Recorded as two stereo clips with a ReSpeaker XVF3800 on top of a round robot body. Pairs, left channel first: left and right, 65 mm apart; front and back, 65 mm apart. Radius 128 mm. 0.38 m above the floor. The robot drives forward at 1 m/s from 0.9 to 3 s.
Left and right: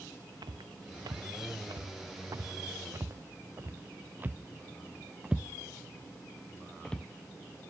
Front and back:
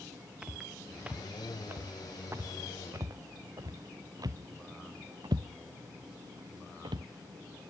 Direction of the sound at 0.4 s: 105° right.